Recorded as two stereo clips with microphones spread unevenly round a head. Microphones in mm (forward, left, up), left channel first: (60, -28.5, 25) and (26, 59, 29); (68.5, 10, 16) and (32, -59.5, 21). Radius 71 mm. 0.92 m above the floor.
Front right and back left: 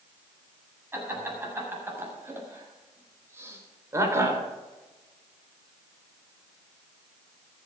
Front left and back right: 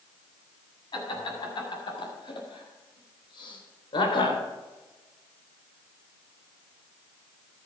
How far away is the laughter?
About 7.5 m.